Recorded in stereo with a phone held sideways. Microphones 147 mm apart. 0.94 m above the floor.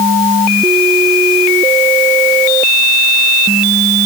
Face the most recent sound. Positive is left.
No sound to turn to.